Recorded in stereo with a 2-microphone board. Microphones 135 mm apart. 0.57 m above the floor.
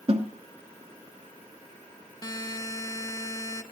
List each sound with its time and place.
0.1 s a snare drum: 50° right (ahead or behind), 1.2 m
2.2 s a buzzer: 30° left (ahead or behind), 0.7 m